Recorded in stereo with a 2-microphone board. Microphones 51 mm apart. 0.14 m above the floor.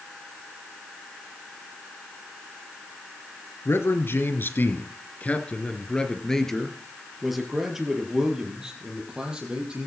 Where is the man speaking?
55° left (ahead or behind), 2.5 m; by 9.9 s 20° right (ahead or behind), 5.5 m.